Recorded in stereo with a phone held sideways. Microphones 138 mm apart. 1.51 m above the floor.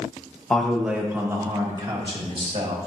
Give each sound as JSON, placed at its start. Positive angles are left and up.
{"t": 0.5, "sound": "a man speaking", "side_deg": 5, "distance_m": 1.4}